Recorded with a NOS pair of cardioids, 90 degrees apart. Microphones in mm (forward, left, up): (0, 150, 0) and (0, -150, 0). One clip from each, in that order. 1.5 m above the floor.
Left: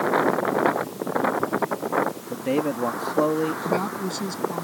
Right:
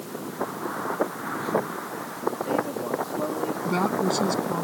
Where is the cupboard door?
No cupboard door in this recording.